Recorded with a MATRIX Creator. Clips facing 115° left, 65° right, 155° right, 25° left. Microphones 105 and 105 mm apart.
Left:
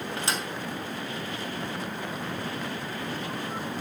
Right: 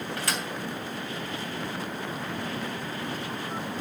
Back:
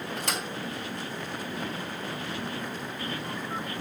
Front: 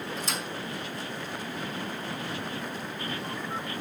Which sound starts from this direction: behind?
A thud, at 0.2 s.